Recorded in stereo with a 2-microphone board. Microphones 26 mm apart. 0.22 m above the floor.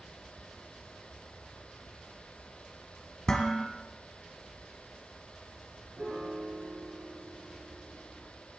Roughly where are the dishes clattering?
Left.